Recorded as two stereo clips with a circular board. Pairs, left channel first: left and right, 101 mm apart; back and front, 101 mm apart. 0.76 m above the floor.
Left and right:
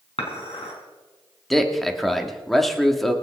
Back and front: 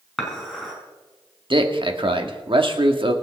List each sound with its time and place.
0.2 s dishes clattering: 95° left, 4.5 m
1.5 s a man speaking: 5° left, 1.8 m